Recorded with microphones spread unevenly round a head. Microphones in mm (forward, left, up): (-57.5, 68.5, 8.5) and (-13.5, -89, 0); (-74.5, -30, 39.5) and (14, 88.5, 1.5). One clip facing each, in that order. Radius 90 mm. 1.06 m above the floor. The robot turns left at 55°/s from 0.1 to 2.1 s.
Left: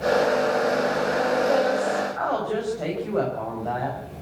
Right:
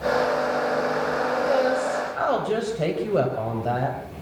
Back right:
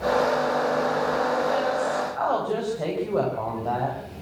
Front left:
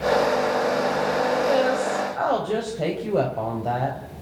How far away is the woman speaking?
About 4.5 m.